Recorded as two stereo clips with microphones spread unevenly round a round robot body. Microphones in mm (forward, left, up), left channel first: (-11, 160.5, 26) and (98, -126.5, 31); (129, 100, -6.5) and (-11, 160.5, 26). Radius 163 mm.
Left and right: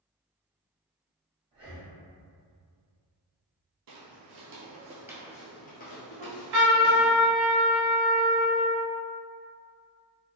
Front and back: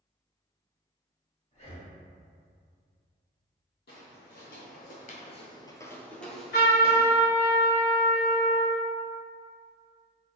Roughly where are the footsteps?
Ahead right.